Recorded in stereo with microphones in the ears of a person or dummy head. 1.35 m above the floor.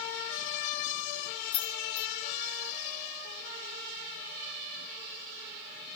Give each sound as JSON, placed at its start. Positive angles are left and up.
{"t": 1.5, "sound": "keys jangling", "side_deg": 35, "distance_m": 0.9}